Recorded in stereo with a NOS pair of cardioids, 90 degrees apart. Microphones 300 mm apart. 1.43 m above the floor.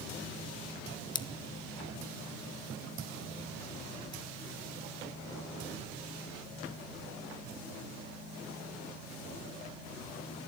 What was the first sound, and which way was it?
Scissors, 15° left.